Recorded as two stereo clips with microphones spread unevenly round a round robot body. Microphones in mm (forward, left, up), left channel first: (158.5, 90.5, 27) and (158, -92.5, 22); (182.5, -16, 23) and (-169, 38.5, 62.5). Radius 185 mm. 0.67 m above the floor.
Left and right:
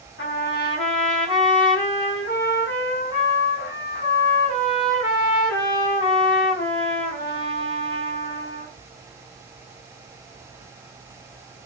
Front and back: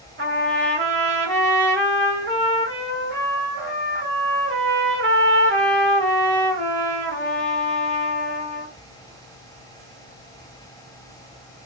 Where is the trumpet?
110° left, 1.9 m.